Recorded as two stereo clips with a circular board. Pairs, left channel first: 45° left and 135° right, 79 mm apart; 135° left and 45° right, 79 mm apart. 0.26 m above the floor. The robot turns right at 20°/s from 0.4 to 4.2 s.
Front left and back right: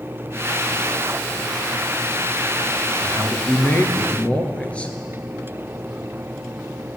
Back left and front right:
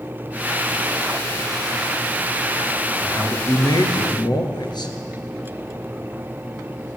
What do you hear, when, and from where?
3.0 s a man speaking: 95° left, 3.5 m; by 5.0 s 120° left, 3.5 m